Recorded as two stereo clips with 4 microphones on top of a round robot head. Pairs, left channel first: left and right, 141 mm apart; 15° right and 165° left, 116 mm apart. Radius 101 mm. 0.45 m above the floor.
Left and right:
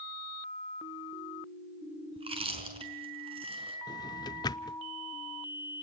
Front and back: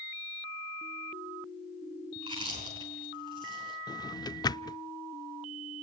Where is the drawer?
35° left, 0.6 m.